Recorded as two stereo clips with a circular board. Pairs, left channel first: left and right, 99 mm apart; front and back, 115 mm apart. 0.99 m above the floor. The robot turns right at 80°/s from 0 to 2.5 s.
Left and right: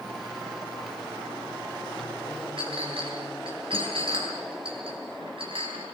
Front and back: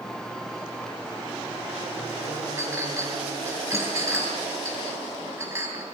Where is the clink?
115° right, 7.5 m.